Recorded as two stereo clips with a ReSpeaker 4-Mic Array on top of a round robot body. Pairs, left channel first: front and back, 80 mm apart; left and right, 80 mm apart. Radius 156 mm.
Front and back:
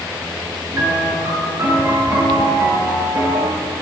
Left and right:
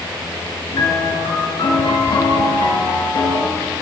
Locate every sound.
0.7 s a piano: 125° left, 6 m